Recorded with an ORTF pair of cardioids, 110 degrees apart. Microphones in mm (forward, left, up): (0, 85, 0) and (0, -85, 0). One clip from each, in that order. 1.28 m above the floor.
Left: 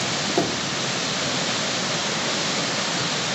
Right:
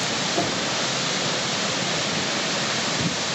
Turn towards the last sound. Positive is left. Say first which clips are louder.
# left 1 dB
turn(degrees=35)